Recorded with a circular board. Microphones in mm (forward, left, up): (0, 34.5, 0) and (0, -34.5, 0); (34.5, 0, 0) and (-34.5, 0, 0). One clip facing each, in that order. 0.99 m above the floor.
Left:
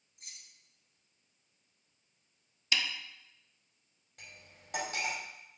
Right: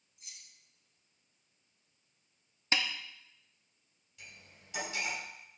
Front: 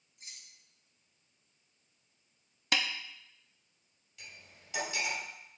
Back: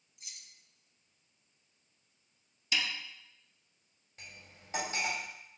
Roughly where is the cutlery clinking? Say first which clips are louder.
Left 1 dB, even; behind left.